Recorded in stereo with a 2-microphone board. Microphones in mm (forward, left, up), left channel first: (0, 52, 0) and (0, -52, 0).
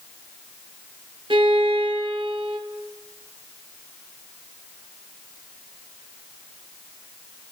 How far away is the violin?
About 0.6 m.